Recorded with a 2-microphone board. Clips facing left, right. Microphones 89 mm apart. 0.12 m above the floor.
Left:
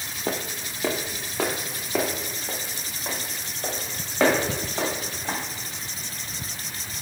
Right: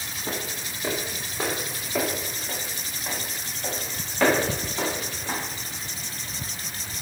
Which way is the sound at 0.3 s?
70° left (ahead or behind).